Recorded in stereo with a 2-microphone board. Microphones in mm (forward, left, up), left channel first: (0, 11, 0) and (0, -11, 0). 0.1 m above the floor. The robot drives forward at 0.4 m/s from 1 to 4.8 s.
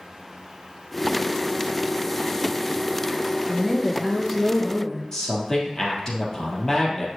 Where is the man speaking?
15° left (ahead or behind), 2.5 m.